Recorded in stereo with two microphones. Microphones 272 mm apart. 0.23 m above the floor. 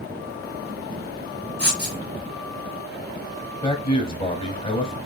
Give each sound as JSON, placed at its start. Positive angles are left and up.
{"t": 1.6, "sound": "writing", "side_deg": -40, "distance_m": 1.9}
{"t": 3.6, "sound": "a man speaking", "side_deg": 20, "distance_m": 1.1}